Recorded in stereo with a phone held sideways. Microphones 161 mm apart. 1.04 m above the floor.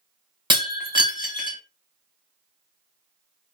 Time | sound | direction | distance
0.5 | breaking glass | 30° right (ahead or behind) | 0.9 m